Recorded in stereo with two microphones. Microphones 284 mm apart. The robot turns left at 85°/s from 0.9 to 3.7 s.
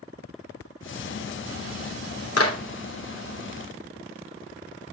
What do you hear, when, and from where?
2.4 s a clap: 60° left (ahead or behind), 3 m; by 2.6 s 40° left (ahead or behind), 3 m